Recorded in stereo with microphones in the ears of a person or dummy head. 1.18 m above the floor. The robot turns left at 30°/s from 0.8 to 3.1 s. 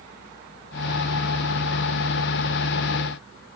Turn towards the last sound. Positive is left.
No sound to turn to.